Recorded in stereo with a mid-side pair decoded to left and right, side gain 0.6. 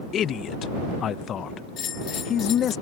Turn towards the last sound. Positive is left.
turn(degrees=50)